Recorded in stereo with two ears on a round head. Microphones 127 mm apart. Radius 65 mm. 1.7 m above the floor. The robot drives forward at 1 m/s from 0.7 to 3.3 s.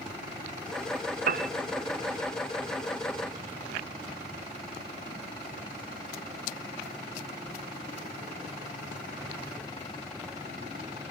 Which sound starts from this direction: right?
A piano, at 1.3 s.